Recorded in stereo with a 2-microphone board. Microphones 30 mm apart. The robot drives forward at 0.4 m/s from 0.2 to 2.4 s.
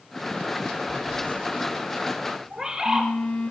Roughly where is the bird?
Centre.